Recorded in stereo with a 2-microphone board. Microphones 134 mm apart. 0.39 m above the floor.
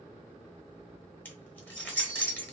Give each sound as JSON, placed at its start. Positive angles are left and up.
{"t": 1.2, "sound": "keys jangling", "side_deg": 15, "distance_m": 1.0}